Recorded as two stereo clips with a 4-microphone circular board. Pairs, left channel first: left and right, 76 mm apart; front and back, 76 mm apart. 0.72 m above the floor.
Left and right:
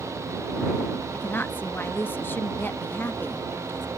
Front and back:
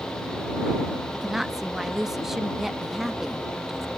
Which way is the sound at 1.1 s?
100° left.